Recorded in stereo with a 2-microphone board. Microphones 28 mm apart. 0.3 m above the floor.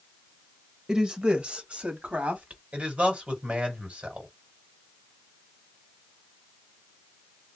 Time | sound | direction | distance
0.9 | a woman speaking | 25° right (ahead or behind) | 0.9 m
2.7 | a man speaking | 45° right (ahead or behind) | 1.8 m